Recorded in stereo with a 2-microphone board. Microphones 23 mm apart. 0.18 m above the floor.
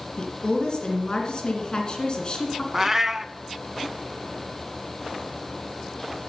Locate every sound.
0.2 s a woman speaking: 40° left (ahead or behind), 2.0 m
2.7 s a cat meowing: 15° right (ahead or behind), 0.6 m